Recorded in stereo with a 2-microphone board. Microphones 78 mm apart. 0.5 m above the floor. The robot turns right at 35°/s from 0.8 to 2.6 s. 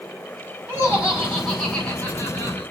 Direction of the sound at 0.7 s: 25° right.